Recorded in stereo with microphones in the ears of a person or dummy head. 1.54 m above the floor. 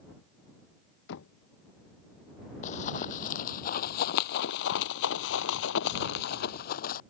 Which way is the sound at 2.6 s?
45° left (ahead or behind).